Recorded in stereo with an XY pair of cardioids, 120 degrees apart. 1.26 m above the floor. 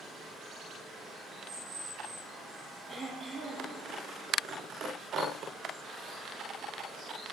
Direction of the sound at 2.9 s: 35° right.